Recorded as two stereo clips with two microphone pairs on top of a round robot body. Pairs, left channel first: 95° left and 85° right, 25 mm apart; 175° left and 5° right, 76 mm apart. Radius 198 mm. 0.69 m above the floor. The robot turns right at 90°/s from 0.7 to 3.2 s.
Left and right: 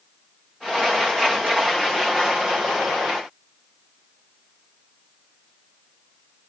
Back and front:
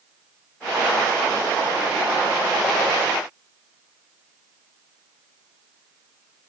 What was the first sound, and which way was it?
Only background noise.